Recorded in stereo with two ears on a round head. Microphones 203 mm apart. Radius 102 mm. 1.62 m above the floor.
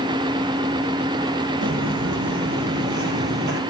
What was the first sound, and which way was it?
Footsteps, 55° right (ahead or behind).